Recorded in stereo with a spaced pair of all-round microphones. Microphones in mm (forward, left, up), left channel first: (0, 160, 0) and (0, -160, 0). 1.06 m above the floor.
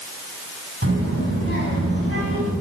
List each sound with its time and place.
0.8 s a child speaking: 40° right (ahead or behind), 6.5 m